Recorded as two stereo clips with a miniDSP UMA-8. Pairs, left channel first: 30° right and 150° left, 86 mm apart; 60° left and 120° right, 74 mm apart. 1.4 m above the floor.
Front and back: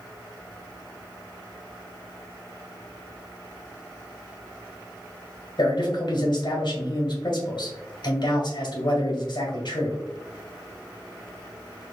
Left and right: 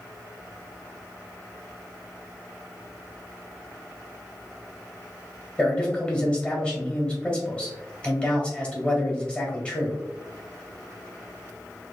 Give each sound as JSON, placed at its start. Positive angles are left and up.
{"t": 5.6, "sound": "a man speaking", "azimuth_deg": -15, "distance_m": 1.9}